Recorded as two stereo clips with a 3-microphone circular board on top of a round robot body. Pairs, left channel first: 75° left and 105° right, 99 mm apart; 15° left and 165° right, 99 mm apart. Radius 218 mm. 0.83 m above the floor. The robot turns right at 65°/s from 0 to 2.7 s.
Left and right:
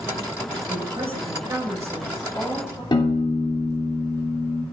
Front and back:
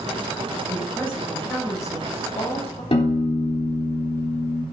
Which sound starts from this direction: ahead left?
A piano, at 2.9 s.